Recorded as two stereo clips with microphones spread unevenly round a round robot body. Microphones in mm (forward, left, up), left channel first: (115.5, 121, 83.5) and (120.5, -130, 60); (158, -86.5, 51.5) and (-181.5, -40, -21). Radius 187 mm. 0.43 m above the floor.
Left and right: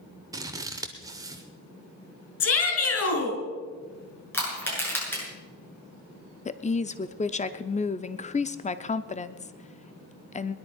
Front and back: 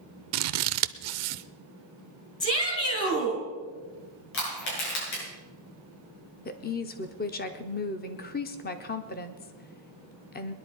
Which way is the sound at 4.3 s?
10° left.